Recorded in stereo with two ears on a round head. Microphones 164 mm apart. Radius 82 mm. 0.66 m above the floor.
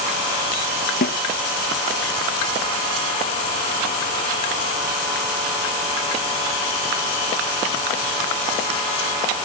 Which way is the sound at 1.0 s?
50° left (ahead or behind).